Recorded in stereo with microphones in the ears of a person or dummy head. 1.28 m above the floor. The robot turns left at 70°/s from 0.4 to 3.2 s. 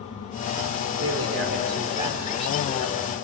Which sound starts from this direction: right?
A man speaking, at 0.9 s.